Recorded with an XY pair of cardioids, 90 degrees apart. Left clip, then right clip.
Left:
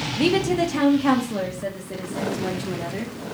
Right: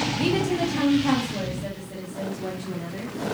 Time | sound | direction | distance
0.2 | a woman speaking | 35° left | 1.1 m